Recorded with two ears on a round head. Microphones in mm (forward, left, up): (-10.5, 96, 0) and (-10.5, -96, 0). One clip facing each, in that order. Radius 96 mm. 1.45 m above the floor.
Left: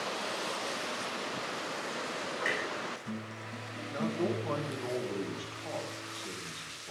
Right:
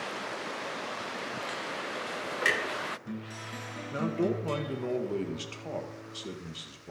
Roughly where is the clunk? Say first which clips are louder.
Right 4 dB; right.